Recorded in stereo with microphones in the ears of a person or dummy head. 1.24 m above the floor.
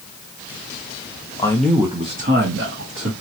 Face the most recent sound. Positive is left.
turn(degrees=-70)  # may be behind; listen again after turning